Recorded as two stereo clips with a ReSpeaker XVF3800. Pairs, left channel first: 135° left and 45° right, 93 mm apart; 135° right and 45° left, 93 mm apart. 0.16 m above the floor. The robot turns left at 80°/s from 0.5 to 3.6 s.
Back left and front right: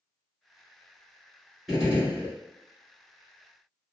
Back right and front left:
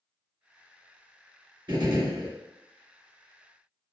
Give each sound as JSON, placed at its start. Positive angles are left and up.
{"t": 1.7, "sound": "a gunshot", "azimuth_deg": 45, "distance_m": 1.5}